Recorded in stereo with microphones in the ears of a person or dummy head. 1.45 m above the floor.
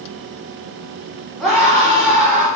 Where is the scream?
Centre (ahead or behind), 5 m.